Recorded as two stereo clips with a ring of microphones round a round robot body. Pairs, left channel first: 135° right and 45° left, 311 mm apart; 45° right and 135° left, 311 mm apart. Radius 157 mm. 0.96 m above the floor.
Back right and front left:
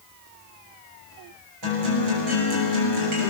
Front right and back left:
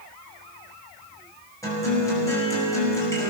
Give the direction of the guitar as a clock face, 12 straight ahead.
11 o'clock.